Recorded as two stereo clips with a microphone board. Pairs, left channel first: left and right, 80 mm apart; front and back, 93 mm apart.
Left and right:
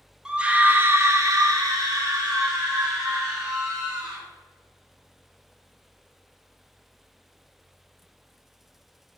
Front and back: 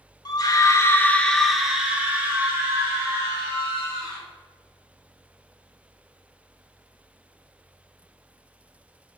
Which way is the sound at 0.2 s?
15° right.